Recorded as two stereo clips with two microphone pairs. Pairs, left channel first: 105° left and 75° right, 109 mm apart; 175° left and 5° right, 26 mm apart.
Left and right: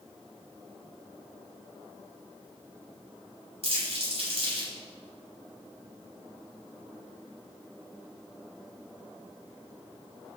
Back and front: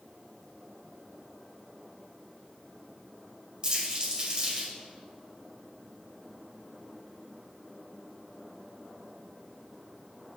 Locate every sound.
3.6 s crumpling: 55° right, 4.5 m